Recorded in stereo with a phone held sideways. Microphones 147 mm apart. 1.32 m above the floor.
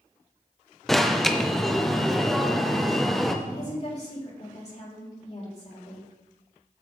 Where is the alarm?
Centre (ahead or behind), 0.8 m.